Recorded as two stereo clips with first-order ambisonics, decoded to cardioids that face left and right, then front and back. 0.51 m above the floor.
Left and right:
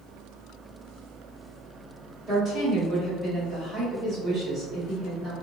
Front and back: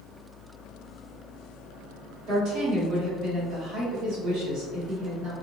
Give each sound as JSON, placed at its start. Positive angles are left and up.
{"t": 2.3, "sound": "a woman speaking", "azimuth_deg": -160, "distance_m": 2.0}